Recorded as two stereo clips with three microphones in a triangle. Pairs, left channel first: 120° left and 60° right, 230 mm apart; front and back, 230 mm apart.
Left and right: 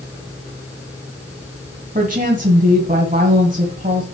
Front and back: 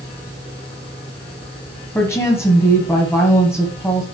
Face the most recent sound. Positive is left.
turn(degrees=-70)